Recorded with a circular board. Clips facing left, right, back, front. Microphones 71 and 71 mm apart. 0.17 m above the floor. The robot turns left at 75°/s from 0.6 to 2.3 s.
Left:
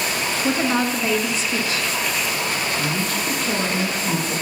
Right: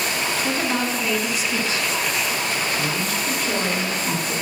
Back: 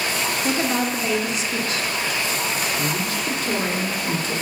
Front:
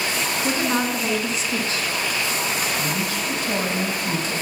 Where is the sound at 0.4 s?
45° left, 1.4 m; by 1.9 s 50° right, 1.4 m.